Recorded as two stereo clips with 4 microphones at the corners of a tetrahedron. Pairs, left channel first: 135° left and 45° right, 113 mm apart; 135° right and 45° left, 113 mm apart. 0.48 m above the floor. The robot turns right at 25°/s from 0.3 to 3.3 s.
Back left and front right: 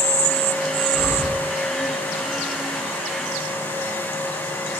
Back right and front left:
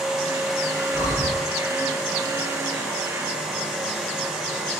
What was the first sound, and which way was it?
Breathing, 110° right.